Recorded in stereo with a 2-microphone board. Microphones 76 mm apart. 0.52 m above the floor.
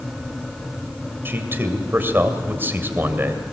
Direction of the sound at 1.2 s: 30° right (ahead or behind).